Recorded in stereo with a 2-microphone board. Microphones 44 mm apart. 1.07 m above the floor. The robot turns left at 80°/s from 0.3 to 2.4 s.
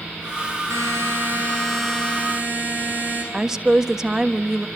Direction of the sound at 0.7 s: 95° right.